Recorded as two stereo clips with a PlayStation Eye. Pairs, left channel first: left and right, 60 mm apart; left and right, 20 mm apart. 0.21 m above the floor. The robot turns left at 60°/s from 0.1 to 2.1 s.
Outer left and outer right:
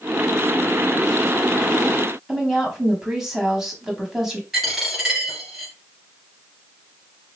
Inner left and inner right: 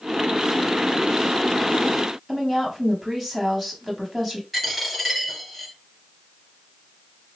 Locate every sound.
2.3 s a woman speaking: 5° right (ahead or behind), 1.1 m
4.5 s a dropped coin: 5° right (ahead or behind), 2 m